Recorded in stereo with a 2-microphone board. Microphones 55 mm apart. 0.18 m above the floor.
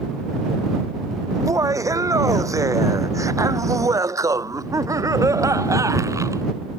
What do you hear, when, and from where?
1.3 s laughter: 80° right; by 6.4 s 75° right (ahead or behind)